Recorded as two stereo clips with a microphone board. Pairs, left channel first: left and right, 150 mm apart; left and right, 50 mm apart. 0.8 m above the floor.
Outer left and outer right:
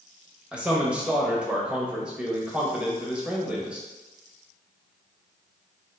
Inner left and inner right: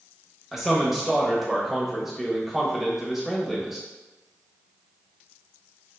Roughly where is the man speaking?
Centre.